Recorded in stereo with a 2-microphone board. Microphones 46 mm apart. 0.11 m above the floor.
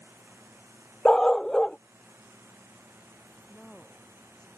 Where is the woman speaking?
15° left (ahead or behind).